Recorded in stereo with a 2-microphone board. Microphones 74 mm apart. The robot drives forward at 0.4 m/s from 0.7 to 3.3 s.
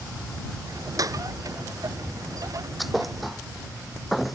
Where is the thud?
Centre (ahead or behind).